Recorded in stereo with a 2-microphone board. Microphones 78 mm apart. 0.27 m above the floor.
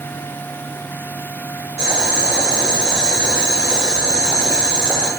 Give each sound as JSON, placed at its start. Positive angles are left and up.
{"t": 1.8, "sound": "boiling", "side_deg": -20, "distance_m": 1.2}